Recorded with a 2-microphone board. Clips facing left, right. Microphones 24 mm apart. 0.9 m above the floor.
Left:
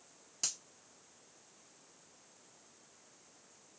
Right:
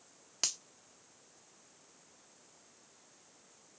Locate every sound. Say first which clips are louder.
0.4 s a finger snap: right 4 dB; 40° right (ahead or behind), 0.6 m